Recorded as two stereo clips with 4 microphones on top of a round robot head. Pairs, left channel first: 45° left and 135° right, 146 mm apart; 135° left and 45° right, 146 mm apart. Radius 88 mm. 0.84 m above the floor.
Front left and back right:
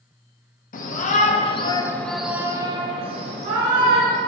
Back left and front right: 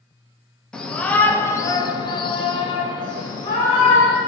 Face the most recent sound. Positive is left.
turn(degrees=-160)